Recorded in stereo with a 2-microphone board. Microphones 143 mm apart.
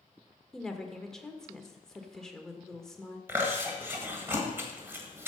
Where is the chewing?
15° right (ahead or behind), 1.7 m.